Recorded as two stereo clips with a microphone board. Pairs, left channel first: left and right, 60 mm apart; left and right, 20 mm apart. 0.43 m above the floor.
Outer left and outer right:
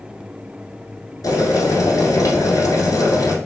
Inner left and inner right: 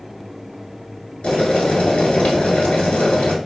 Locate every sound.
1.2 s boiling: 75° left (ahead or behind), 1.0 m